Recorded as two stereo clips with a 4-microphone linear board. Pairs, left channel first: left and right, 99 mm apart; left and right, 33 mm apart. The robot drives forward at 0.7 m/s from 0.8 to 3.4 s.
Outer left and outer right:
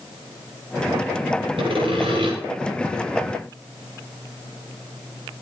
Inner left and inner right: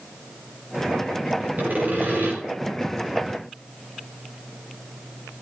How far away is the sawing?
About 8.5 m.